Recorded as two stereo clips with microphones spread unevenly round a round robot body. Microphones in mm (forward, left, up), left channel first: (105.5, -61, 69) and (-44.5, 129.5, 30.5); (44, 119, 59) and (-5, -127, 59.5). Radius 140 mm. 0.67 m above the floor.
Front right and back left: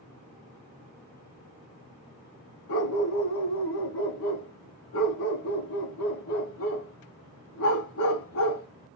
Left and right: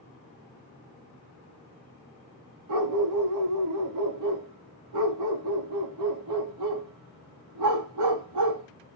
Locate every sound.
2.7 s a dog barking: 90° right, 1.2 m